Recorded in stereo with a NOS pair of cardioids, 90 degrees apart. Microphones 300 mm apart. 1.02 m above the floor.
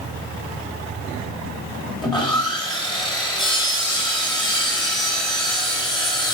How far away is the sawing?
About 1.3 m.